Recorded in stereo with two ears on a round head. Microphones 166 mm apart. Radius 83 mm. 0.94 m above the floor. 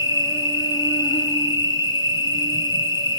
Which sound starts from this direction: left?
An insect, at 0.0 s.